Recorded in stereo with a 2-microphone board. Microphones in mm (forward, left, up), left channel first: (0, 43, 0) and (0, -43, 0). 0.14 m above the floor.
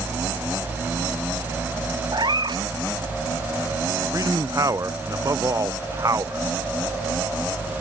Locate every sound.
2.1 s a cat meowing: 60° right (ahead or behind)
4.1 s a man speaking: 40° right (ahead or behind)